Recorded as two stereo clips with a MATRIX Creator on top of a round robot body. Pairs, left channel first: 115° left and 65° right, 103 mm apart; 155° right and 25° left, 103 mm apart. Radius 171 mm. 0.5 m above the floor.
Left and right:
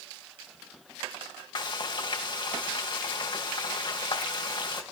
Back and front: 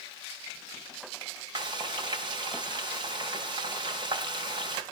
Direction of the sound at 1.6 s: 70° left.